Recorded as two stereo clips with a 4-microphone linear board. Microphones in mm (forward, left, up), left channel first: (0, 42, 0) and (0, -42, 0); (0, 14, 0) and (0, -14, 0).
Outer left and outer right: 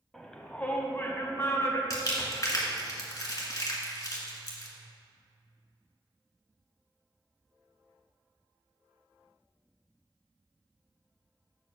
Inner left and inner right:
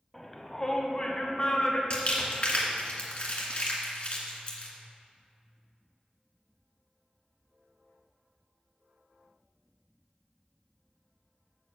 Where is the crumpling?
45° left (ahead or behind), 1.8 m.